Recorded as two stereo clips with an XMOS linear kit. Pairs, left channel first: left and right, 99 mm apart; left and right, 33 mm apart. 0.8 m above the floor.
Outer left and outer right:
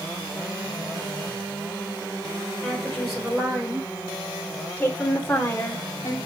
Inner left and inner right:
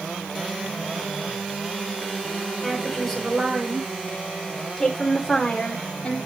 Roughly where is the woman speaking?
Centre.